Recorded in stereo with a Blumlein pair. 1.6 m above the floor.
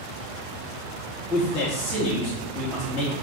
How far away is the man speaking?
About 1.3 m.